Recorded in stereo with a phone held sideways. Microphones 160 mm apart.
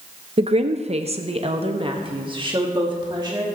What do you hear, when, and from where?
0.4 s a woman speaking: 40° right (ahead or behind), 0.6 m; by 3.5 s 25° right (ahead or behind), 2.0 m